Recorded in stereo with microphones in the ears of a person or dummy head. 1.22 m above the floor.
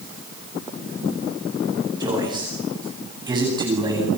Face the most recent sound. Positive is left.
turn(degrees=-30)  # may be behind; listen again after turning